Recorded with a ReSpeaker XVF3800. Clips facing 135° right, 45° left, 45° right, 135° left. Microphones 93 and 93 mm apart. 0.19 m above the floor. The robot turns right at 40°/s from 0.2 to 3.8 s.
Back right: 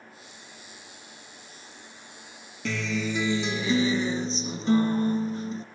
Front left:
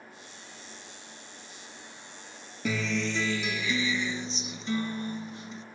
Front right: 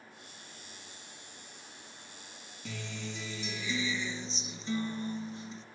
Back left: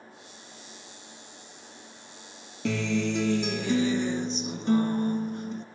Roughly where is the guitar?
Behind left.